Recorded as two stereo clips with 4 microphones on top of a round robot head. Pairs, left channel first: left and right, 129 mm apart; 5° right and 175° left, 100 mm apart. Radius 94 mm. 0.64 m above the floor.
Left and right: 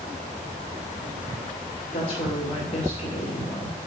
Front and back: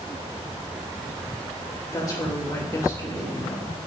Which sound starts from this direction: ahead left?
A woman speaking, at 1.9 s.